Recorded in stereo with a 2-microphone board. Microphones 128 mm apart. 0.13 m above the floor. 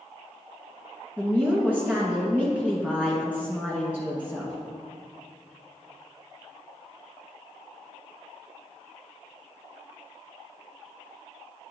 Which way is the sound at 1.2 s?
10° right (ahead or behind).